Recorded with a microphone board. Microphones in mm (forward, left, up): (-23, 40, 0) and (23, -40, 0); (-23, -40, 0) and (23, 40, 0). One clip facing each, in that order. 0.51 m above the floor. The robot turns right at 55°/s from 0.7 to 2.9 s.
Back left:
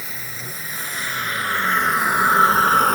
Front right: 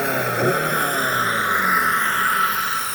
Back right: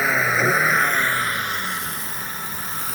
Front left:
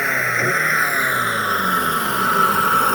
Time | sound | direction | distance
0.0 | a vehicle | 30° right | ?